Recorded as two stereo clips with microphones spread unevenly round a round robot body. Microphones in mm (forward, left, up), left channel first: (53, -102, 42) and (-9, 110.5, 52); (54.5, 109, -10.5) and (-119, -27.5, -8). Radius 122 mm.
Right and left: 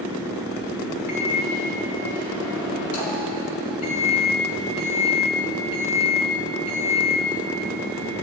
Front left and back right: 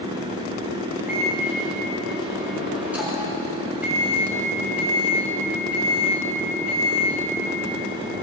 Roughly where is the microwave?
Ahead right.